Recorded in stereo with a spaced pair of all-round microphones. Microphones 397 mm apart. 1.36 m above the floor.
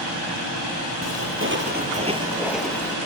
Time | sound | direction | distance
1.0 | footsteps | 40° right (ahead or behind) | 2.5 m